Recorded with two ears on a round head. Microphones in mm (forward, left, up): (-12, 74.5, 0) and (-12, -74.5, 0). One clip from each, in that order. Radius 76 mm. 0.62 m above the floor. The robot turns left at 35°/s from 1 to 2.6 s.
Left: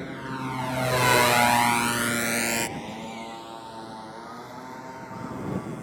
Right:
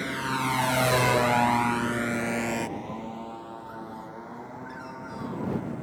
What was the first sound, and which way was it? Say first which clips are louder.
A motorcycle: right 5 dB; 45° right (ahead or behind).